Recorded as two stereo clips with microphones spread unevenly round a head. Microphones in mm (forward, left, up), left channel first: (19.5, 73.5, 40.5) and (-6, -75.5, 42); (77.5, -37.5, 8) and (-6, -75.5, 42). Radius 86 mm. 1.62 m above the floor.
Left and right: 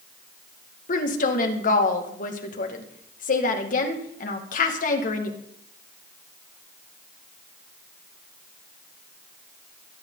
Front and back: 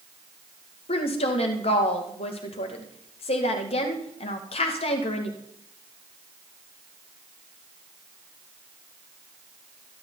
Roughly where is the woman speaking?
Ahead left.